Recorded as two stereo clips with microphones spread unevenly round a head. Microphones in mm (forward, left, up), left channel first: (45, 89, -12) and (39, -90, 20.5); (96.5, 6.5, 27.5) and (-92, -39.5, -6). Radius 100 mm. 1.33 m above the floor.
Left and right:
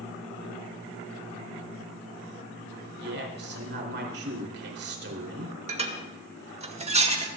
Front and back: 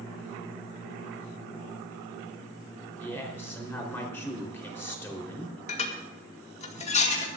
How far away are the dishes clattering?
About 2 m.